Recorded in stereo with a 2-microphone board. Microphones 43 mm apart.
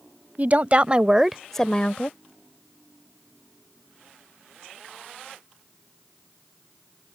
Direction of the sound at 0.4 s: 40° right (ahead or behind).